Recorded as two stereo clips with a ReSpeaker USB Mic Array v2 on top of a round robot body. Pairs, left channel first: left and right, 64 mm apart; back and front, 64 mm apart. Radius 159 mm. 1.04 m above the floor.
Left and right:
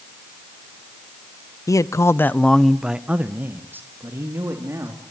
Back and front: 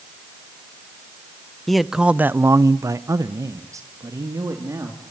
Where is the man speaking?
95° left, 1.1 m; by 5.0 s 40° right, 3.5 m.